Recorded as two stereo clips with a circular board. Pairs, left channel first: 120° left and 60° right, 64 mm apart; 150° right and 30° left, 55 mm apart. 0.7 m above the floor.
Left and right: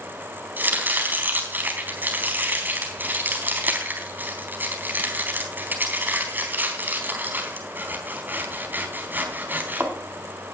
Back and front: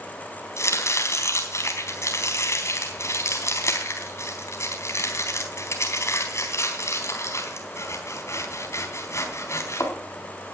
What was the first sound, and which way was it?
Chopping, 120° right.